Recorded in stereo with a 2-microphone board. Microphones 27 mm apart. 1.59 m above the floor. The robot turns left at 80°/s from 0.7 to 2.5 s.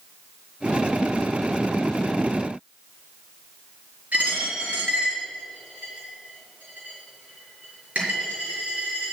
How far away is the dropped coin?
About 6 m.